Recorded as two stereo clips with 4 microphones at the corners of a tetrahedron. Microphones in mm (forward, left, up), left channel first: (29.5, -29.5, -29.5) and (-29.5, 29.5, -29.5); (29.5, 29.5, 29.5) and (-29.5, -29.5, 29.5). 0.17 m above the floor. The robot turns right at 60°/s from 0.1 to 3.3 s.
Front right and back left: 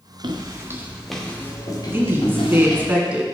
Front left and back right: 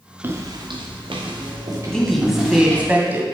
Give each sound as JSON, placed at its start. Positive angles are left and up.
{"t": 0.2, "sound": "footsteps", "azimuth_deg": 160, "distance_m": 1.4}
{"t": 1.9, "sound": "a woman speaking", "azimuth_deg": 115, "distance_m": 1.5}